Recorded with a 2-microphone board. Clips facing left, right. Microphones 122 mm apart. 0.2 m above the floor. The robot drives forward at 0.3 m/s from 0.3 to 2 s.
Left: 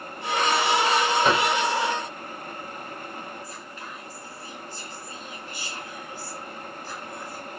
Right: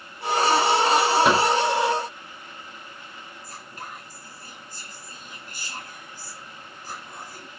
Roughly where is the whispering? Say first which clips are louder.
Left 1 dB; right.